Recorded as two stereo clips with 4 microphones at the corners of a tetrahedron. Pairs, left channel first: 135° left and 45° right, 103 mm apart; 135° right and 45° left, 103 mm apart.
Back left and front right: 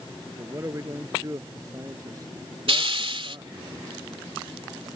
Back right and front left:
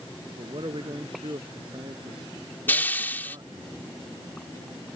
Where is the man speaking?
15° left; by 3.7 s 5° left.